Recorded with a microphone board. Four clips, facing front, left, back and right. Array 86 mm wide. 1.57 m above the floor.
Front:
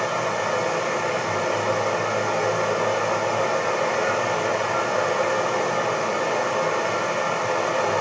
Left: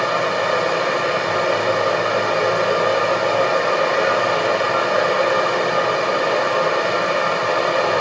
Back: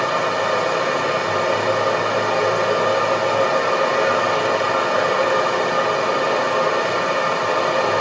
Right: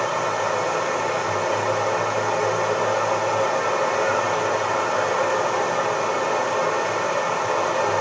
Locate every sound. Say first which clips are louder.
0.0 s running water: left 3 dB, back 4 dB; 120° left, 1.4 m